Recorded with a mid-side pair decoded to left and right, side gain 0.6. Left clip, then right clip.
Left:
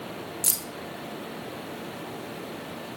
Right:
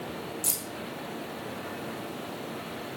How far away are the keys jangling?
About 0.9 m.